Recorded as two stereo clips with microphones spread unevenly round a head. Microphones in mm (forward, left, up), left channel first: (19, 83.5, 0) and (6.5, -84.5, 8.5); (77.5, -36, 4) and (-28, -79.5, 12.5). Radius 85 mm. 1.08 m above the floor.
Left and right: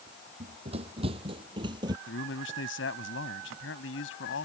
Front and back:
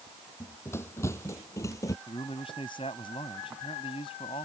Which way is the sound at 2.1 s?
85° left.